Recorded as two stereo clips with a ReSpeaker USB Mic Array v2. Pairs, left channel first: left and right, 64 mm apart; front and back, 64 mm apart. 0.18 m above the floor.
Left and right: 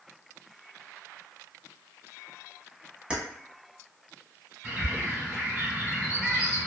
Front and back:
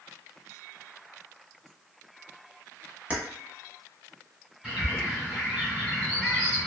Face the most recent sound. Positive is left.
turn(degrees=-120)